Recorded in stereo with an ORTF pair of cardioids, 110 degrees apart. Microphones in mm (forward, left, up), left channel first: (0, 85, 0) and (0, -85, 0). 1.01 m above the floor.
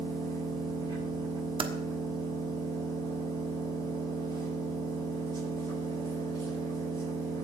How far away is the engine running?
About 5.5 m.